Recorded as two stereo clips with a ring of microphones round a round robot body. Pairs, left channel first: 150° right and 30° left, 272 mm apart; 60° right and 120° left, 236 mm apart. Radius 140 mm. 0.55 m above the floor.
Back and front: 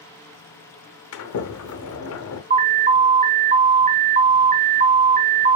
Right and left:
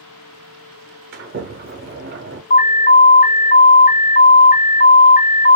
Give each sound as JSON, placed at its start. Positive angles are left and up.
{"t": 1.1, "sound": "a sliding door", "azimuth_deg": 175, "distance_m": 0.7}
{"t": 2.5, "sound": "an alarm", "azimuth_deg": -20, "distance_m": 0.7}